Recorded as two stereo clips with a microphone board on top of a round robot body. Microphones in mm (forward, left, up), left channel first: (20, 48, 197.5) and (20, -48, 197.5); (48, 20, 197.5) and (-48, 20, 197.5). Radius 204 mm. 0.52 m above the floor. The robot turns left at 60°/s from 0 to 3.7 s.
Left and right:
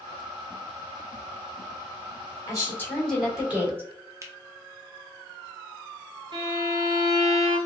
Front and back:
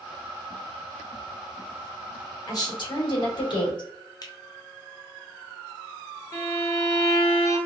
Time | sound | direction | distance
2.5 | a woman speaking | 45° left | 2.5 m
4.2 | a finger snap | 40° right | 1.1 m
6.3 | a violin | 55° right | 1.6 m